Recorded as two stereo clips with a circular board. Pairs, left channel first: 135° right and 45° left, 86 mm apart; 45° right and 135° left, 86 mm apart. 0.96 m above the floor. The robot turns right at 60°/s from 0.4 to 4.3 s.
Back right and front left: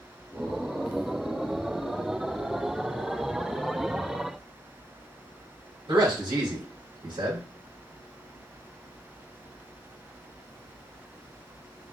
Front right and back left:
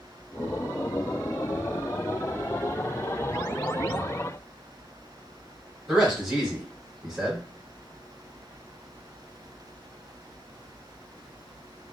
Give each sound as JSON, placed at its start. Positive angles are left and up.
{"t": 5.9, "sound": "a man speaking", "azimuth_deg": 55, "distance_m": 1.9}